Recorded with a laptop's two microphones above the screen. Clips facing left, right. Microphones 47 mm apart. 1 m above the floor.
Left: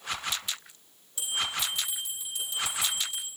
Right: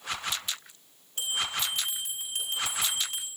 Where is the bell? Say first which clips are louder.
Even; 55° right (ahead or behind), 4 m.